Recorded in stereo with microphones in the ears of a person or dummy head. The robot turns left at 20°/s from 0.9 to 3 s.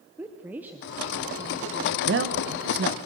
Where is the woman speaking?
15° right, 1.0 m; by 2.6 s 50° right, 1.0 m.